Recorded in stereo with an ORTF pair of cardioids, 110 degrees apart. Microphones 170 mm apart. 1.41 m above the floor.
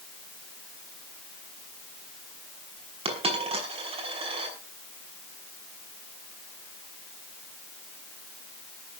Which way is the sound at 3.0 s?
35° right.